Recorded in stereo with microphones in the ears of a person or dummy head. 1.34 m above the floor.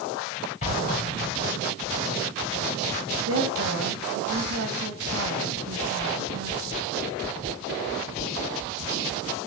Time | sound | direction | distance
0.6 | an explosion | 40° left (ahead or behind) | 4 m
3.3 | a woman speaking | 75° right (ahead or behind) | 2.5 m